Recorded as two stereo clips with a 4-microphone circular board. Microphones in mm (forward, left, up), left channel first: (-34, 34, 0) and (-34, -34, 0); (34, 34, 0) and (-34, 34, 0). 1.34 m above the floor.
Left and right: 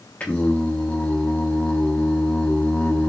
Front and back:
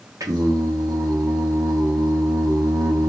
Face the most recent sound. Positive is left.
turn(degrees=160)